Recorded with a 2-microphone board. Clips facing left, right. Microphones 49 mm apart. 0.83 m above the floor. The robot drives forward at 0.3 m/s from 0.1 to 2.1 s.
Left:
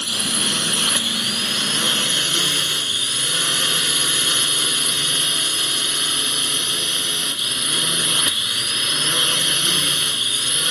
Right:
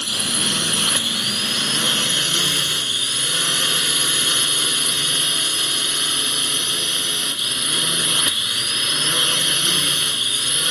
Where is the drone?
Centre (ahead or behind).